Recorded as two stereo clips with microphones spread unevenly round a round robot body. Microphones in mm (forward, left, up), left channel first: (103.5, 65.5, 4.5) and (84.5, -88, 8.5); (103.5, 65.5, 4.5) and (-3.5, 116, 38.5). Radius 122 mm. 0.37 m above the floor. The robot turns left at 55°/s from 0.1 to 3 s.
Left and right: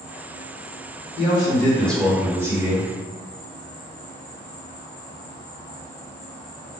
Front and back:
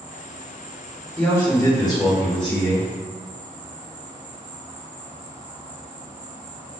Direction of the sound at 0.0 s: 90° right.